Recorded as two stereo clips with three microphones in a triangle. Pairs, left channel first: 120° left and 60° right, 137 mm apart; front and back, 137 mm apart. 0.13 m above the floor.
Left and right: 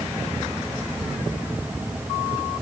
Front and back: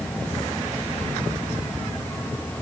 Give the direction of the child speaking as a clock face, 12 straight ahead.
I don't hear a child speaking.